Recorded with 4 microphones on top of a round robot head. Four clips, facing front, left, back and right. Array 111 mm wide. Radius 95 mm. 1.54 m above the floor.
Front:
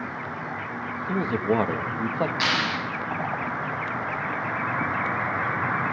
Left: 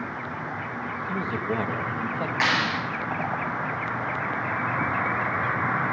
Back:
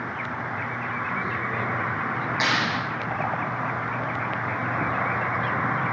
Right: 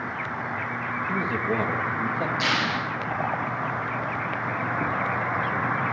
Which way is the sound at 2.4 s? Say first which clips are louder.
Left 1 dB, back 1 dB; 115° left.